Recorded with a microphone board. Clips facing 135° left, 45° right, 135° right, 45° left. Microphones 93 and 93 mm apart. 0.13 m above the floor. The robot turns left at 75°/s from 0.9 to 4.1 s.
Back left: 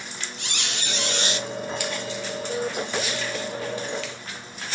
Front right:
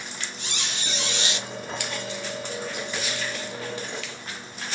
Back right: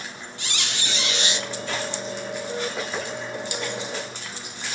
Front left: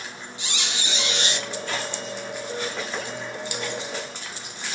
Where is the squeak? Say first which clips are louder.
Back left 3 dB, even; 120° left, 0.9 m; by 1.5 s 75° left, 0.9 m.